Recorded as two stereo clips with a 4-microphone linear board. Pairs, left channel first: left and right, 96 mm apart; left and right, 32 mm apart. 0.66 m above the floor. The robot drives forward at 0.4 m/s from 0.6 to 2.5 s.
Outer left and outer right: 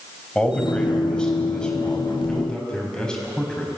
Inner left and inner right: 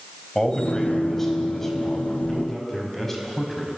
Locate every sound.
0.3 s a man speaking: 10° left (ahead or behind), 4 m